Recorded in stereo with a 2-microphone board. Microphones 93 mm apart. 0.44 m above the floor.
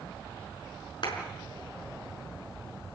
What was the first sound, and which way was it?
A clap, 55° left (ahead or behind).